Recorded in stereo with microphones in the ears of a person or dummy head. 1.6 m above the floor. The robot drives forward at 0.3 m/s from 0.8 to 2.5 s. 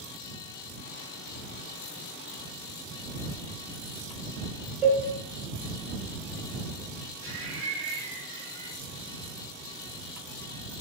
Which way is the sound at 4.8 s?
10° right (ahead or behind).